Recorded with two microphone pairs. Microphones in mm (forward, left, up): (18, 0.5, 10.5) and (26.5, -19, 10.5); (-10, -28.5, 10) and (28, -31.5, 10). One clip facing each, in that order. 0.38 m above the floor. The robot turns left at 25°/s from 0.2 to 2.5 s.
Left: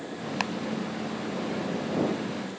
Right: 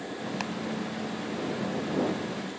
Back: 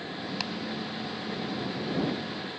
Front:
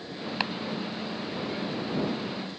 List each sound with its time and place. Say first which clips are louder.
0.4 s chopping: left 6 dB, front 7 dB; 55° left; by 0.5 s 50° left